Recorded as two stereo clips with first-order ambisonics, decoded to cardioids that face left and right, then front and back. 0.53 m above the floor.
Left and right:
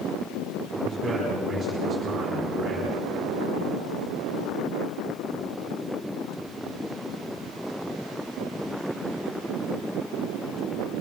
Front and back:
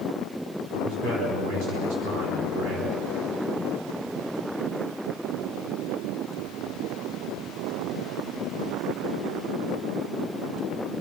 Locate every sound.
0.7 s a man speaking: 165° right, 4.5 m